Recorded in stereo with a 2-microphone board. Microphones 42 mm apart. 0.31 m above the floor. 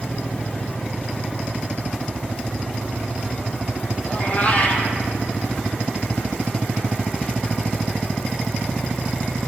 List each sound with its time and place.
4.0 s a cat meowing: 35° left (ahead or behind), 2 m